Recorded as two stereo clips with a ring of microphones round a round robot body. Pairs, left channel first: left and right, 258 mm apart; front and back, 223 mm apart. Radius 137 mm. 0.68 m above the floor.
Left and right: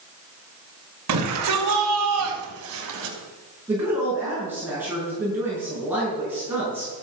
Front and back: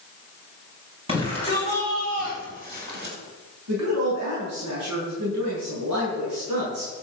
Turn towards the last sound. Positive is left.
turn(degrees=-170)